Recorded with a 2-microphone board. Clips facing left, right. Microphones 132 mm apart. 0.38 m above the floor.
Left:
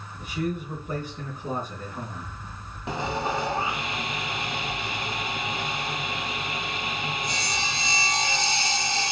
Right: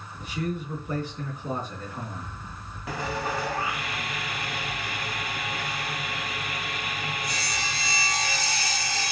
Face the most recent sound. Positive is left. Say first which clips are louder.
# left 2 dB
turn(degrees=25)  # may be behind; listen again after turning